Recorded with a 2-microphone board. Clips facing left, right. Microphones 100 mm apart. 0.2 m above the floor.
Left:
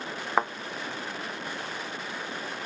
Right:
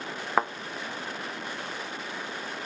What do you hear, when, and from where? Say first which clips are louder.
0.4 s a thud: even; centre (ahead or behind)